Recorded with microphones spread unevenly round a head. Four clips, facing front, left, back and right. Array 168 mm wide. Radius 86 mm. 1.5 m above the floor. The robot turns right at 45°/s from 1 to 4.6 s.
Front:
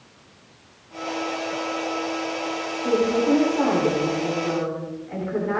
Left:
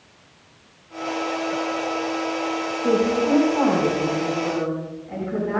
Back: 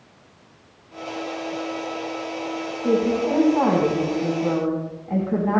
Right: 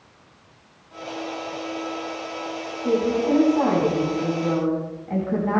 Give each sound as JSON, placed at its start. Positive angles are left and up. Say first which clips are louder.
{"t": 2.8, "sound": "a woman speaking", "louder": "left 1 dB, back 1 dB", "azimuth_deg": 125, "distance_m": 4.5}